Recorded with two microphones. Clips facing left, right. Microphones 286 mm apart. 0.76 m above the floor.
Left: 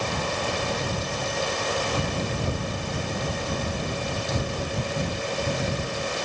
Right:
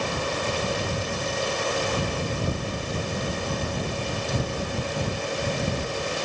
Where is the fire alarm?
No fire alarm in this recording.